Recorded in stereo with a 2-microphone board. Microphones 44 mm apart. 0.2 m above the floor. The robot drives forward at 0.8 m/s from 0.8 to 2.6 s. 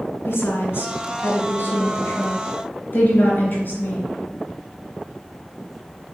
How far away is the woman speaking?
About 2.5 m.